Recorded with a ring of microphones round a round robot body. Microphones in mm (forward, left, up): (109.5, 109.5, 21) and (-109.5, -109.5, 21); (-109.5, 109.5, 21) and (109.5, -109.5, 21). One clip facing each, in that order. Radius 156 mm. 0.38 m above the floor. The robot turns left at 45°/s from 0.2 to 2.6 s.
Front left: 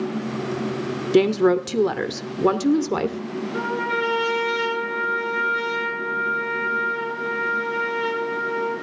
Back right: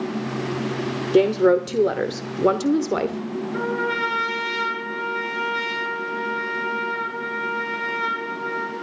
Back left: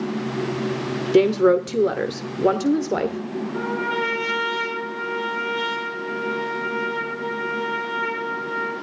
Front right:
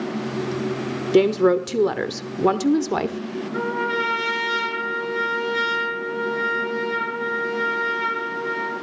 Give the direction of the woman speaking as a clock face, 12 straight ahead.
11 o'clock.